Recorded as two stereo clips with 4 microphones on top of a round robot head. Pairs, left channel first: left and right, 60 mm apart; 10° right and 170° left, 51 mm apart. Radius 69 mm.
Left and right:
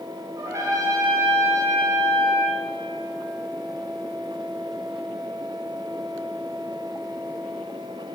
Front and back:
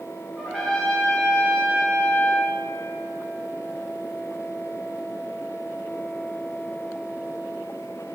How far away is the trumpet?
About 2 m.